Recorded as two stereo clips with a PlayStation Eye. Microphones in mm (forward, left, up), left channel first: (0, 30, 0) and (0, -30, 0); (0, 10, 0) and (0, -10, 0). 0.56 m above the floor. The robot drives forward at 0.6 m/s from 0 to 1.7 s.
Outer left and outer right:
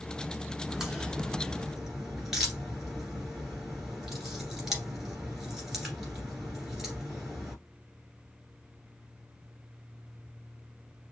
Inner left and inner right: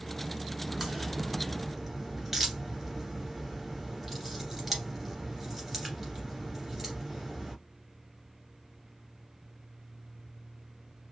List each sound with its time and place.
0.7 s a crack: 10° right (ahead or behind), 1.2 m